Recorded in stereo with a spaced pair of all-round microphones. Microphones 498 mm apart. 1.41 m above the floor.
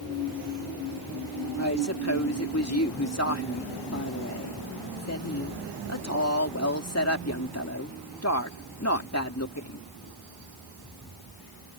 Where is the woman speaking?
30° left (ahead or behind).